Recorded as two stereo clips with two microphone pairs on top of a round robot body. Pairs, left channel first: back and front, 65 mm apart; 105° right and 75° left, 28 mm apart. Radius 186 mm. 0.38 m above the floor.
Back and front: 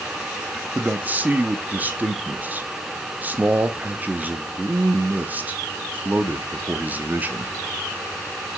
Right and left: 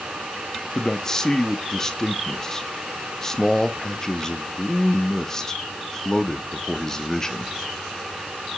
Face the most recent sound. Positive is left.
turn(degrees=-50)